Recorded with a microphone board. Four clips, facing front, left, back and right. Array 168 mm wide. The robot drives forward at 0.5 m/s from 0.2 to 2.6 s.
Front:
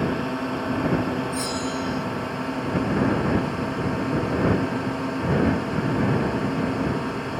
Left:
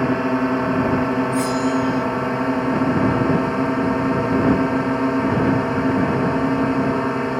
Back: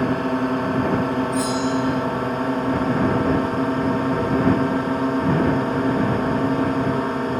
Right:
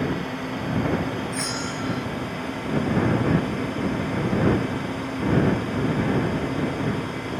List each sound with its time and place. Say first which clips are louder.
0.0 s a drone: left 8 dB, back 5 dB; 120° left; by 7.4 s 125° left
1.3 s a bell: left 10 dB, back 6 dB; 75° right; by 2.1 s 125° right